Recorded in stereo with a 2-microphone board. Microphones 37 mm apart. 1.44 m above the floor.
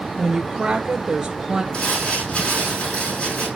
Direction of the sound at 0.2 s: 25° right (ahead or behind).